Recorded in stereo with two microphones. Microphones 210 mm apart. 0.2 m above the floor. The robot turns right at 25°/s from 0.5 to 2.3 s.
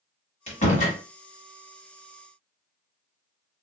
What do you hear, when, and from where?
0.5 s a door slam: 30° left (ahead or behind), 1.2 m; by 1.0 s 40° left (ahead or behind), 1.2 m